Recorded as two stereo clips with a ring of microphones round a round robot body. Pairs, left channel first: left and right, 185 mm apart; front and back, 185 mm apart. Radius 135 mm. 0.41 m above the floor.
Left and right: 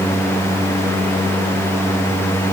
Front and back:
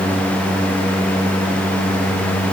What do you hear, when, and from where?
Only background noise.